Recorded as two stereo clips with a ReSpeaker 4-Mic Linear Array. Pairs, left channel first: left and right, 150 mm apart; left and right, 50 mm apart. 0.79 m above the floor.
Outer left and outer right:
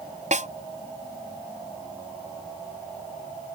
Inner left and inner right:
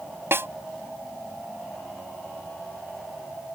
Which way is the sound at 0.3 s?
50° right (ahead or behind).